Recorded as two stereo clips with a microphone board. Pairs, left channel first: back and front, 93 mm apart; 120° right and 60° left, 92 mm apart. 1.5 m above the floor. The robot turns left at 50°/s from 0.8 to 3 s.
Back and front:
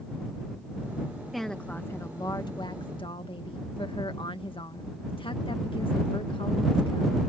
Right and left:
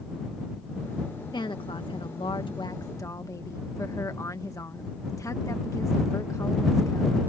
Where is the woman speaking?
90° right; by 7.2 s 170° right.